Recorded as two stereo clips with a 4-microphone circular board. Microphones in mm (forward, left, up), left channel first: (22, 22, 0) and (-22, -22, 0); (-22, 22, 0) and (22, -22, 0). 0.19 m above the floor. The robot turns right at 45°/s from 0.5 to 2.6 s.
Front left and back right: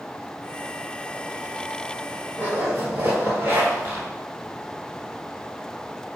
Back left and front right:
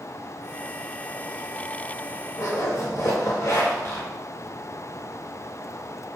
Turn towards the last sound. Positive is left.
turn(degrees=170)